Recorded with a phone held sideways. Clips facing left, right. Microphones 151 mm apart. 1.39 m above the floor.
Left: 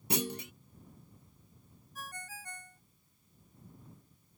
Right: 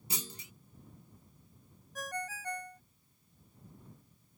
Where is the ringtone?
75° right (ahead or behind).